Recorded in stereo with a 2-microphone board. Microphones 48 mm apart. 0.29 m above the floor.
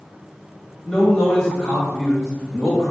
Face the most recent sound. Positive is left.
turn(degrees=15)  # may be behind; listen again after turning